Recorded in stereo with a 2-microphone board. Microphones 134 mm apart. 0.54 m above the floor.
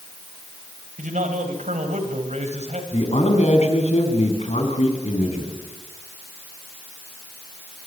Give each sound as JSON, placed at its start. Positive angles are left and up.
{"t": 1.0, "sound": "a man speaking", "side_deg": -70, "distance_m": 4.0}
{"t": 2.9, "sound": "a man speaking", "side_deg": 55, "distance_m": 4.5}